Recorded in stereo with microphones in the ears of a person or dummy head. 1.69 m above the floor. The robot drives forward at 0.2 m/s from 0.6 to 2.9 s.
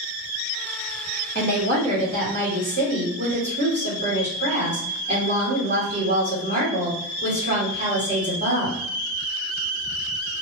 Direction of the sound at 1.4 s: 45° right (ahead or behind).